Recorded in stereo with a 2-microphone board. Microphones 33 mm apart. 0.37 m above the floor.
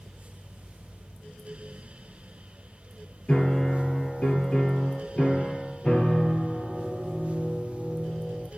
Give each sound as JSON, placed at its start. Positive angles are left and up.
{"t": 3.3, "sound": "a piano", "side_deg": 40, "distance_m": 3.5}